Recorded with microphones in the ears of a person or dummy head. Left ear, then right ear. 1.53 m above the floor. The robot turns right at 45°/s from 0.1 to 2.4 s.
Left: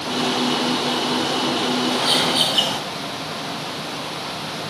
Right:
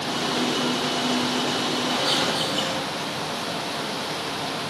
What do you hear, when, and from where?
1.9 s a bird: 10° left (ahead or behind), 3.5 m; by 2.8 s 30° left (ahead or behind), 3.5 m